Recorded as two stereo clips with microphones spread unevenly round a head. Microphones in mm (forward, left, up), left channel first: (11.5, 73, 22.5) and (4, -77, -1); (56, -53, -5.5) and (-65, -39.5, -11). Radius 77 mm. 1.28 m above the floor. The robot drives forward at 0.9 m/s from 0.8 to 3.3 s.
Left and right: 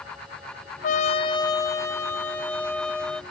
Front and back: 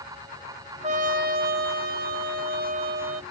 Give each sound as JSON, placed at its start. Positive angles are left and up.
{"t": 0.8, "sound": "a trumpet", "azimuth_deg": 125}